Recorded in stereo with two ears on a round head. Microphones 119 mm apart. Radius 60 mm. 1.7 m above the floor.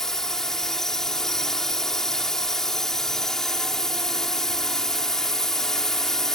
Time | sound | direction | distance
0.0 | a drone | 5° left (ahead or behind) | ?